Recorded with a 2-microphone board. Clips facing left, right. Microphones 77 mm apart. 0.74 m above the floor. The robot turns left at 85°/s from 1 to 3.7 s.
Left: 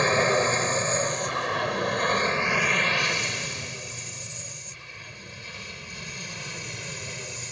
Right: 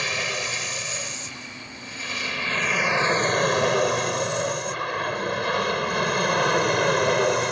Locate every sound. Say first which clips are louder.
0.0 s an aircraft: left 7 dB; 30° left (ahead or behind); by 7.5 s 65° right (ahead or behind)